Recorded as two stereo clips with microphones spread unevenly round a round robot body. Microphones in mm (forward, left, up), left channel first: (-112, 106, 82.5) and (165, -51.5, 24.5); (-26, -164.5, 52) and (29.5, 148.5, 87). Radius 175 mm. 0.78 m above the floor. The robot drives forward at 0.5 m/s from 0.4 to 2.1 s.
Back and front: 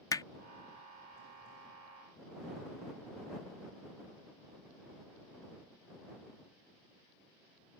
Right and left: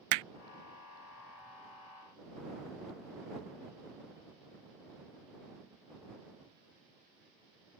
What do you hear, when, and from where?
0.1 s hammering: 70° left